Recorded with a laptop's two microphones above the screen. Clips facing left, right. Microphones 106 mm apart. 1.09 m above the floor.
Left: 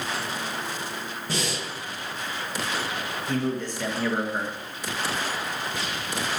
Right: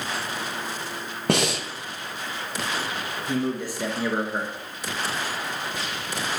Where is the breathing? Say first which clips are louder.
Right 8 dB; 70° right (ahead or behind), 1.3 m.